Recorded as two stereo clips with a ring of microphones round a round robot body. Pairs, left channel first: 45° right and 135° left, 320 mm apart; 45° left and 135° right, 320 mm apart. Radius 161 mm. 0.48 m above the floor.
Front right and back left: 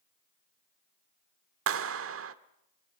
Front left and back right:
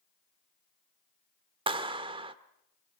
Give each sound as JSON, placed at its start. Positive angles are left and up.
{"t": 1.7, "sound": "a clap", "azimuth_deg": 155, "distance_m": 1.4}